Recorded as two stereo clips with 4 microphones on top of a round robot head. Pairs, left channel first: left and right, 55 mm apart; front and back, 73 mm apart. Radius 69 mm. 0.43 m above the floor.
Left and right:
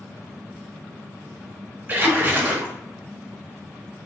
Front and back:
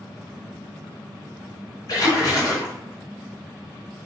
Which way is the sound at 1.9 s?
35° right.